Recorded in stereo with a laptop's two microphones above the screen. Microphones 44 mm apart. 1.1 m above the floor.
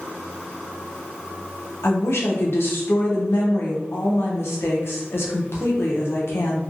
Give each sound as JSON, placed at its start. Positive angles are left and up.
{"t": 1.8, "sound": "a woman speaking", "side_deg": 65, "distance_m": 0.8}